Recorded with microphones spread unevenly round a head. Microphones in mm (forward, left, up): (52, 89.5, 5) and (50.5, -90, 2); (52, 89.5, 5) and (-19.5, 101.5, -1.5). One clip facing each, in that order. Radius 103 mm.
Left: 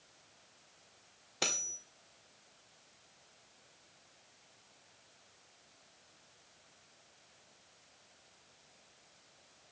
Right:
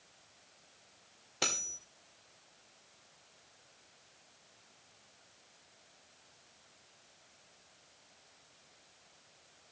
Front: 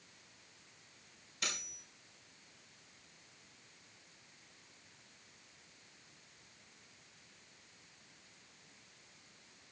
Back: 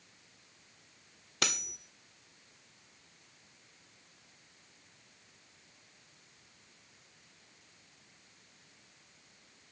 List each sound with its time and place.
1.4 s cutlery clinking: straight behind, 1.7 m